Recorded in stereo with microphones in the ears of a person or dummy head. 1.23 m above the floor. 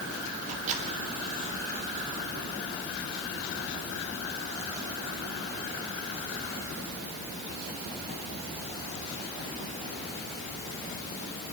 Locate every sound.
0.4 s a microwave: 40° right (ahead or behind), 3 m